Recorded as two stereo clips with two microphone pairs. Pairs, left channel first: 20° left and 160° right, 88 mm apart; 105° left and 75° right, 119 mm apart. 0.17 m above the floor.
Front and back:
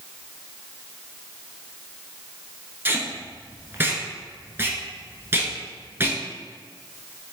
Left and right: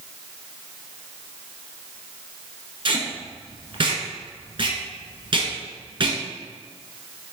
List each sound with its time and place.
2.9 s tape being pulled: 100° right, 0.9 m